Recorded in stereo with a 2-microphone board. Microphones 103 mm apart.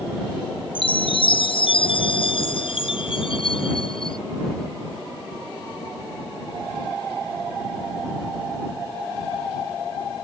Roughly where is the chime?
Left.